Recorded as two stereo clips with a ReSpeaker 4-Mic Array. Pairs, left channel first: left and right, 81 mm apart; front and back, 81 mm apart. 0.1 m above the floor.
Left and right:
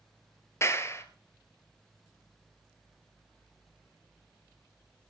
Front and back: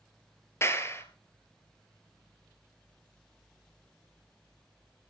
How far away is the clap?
About 1.6 m.